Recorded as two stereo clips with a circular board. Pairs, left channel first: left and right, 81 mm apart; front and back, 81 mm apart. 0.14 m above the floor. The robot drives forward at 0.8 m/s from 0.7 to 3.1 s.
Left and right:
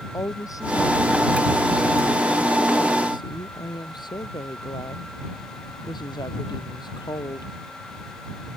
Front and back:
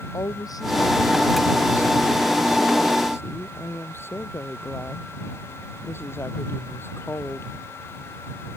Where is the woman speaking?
45° left; by 7.5 s 60° left.